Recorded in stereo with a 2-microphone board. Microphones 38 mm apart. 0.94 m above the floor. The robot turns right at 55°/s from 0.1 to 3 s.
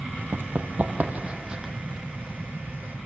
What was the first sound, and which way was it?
Running footsteps, 60° right (ahead or behind).